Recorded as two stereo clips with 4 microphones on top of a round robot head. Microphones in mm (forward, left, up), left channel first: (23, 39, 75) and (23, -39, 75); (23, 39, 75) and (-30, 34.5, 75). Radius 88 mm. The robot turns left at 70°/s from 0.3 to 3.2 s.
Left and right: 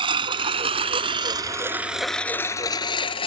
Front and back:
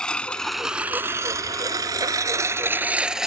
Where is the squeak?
I don't hear a squeak.